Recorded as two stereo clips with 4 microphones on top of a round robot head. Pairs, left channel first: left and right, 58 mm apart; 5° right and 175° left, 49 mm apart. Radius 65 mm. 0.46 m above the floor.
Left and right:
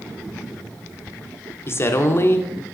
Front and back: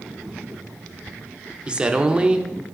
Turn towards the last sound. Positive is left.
turn(degrees=115)